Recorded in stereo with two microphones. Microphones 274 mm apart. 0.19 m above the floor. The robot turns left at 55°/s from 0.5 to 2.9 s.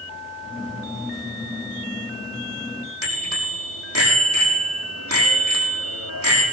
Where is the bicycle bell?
60° right (ahead or behind), 5.5 m.